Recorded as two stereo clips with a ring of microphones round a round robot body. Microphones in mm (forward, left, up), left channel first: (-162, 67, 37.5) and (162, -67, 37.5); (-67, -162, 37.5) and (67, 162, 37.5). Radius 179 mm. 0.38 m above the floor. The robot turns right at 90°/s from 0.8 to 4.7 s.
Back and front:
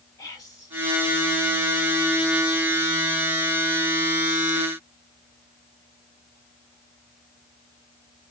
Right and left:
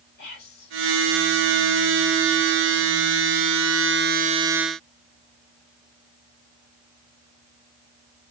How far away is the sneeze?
I don't hear a sneeze.